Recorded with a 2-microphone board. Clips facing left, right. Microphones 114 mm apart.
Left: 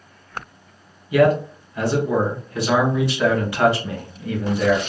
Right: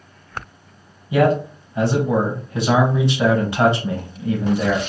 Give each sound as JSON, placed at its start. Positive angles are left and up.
{"t": 1.1, "sound": "a man speaking", "side_deg": -25, "distance_m": 1.0}